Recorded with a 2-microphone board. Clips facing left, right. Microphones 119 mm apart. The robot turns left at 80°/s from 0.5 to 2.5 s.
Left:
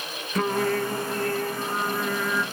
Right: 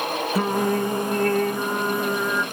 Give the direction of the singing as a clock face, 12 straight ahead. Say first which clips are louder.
Right 1 dB; 12 o'clock.